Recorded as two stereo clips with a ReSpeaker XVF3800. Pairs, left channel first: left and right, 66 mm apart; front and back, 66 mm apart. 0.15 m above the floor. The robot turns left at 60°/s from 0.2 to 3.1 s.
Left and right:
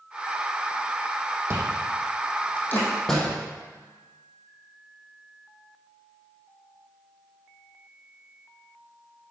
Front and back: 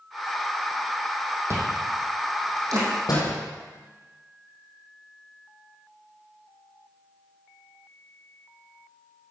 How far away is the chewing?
About 3 m.